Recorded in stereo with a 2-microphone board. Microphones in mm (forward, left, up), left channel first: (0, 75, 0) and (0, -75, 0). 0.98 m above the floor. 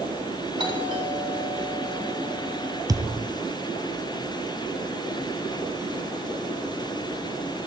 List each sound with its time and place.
0.6 s a doorbell: 35° right (ahead or behind), 4 m
2.9 s a thud: 25° right (ahead or behind), 1.2 m